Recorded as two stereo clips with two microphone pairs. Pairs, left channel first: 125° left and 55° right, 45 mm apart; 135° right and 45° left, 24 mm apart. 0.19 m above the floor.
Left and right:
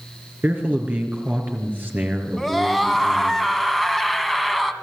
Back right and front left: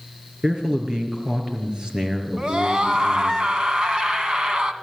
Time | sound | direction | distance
0.4 | a man speaking | 10° right | 4 m
2.4 | a scream | 30° left | 1.8 m